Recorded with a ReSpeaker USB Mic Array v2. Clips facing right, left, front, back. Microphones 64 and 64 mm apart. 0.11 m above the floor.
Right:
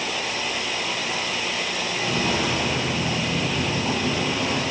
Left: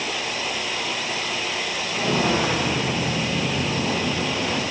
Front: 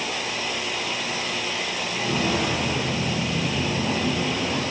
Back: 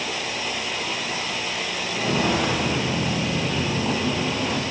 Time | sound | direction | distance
1.9 | footsteps | 135° left | 1.5 m